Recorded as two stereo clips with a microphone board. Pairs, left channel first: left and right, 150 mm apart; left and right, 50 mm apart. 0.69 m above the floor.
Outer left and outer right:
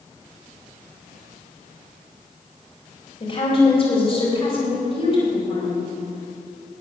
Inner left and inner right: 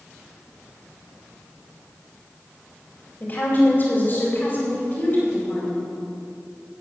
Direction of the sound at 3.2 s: 40° left (ahead or behind).